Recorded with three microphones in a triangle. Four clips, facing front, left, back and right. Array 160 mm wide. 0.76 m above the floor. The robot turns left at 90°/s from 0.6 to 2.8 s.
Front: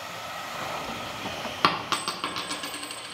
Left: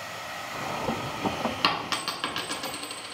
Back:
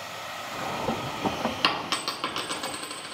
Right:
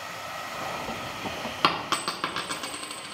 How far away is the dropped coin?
About 0.9 m.